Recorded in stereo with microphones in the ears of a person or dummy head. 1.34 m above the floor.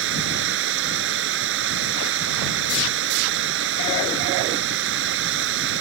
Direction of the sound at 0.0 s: 75° right (ahead or behind).